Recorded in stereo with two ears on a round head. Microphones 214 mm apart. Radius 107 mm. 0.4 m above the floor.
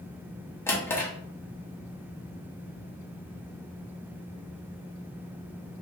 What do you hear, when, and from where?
0.7 s a drawer: 10° left (ahead or behind), 0.6 m